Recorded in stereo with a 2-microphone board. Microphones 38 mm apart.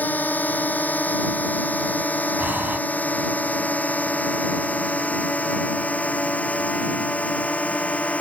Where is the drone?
50° left (ahead or behind); by 8.2 s 40° left (ahead or behind).